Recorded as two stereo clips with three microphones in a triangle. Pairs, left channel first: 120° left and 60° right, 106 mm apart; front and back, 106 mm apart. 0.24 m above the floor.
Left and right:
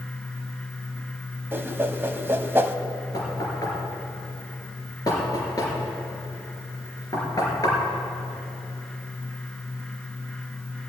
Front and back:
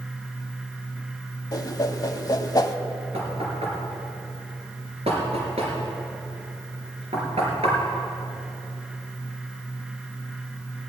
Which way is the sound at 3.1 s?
175° left.